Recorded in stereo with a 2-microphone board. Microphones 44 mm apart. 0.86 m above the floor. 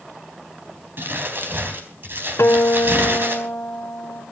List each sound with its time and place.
1.0 s crumpling: 55° right (ahead or behind), 3.5 m
2.4 s a guitar: 85° left, 1.9 m